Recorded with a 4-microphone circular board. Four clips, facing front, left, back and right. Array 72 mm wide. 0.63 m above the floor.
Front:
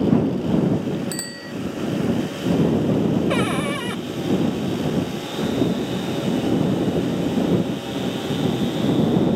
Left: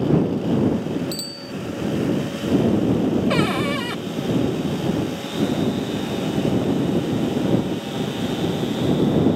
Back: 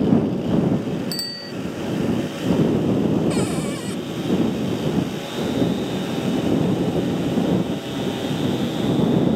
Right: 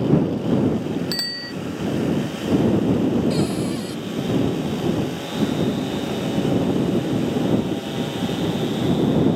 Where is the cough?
I don't hear a cough.